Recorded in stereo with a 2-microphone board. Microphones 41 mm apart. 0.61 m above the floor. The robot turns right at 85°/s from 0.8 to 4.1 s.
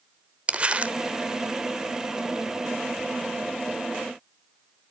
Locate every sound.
0.5 s crumpling: 30° right (ahead or behind), 0.9 m; by 0.9 s 40° right (ahead or behind), 0.9 m